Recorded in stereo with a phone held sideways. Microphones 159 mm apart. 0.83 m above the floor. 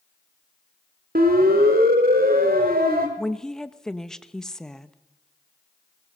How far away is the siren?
About 3 m.